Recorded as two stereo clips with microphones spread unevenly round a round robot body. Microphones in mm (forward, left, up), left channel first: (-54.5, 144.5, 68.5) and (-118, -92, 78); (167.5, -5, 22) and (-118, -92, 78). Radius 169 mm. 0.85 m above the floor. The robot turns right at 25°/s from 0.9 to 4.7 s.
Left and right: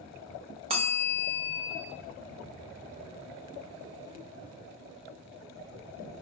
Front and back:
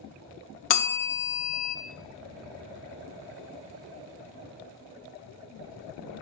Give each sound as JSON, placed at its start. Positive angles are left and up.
{"t": 0.7, "sound": "a bell", "azimuth_deg": -35, "distance_m": 0.6}